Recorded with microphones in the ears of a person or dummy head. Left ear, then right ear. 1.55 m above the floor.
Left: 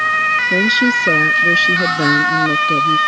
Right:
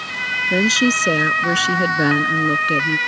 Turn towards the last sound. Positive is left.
turn(degrees=-40)  # may be behind; listen again after turning